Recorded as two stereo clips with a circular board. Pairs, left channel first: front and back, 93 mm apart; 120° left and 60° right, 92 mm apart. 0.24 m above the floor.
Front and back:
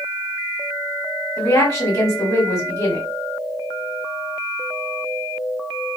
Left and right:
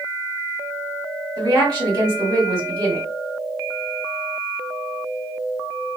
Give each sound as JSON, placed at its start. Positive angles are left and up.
{"t": 1.4, "sound": "a woman speaking", "azimuth_deg": -25, "distance_m": 1.9}